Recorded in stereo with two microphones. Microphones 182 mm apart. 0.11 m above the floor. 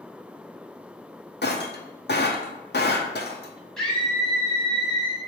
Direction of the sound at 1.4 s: 75° left (ahead or behind).